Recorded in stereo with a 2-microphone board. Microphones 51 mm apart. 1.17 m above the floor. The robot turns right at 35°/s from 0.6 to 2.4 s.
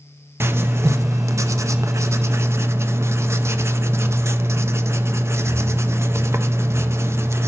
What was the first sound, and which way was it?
Writing, 125° right.